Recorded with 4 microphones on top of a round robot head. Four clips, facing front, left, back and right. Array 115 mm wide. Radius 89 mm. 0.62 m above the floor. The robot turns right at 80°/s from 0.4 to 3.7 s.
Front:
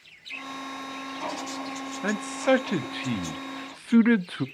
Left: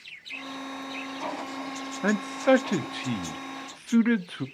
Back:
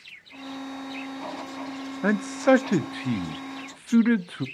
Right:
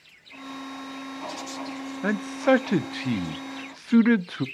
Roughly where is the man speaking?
Behind.